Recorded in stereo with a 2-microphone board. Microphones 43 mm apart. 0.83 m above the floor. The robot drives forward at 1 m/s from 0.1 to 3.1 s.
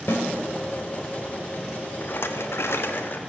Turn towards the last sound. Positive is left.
turn(degrees=45)  # may be behind; listen again after turning